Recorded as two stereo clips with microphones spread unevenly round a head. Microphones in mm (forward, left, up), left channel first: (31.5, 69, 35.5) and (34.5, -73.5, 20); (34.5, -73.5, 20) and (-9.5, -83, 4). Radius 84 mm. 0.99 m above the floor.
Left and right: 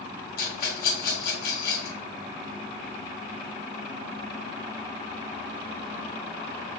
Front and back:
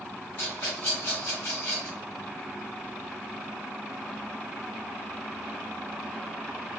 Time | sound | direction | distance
0.4 | a rattle | 80° left | 1.6 m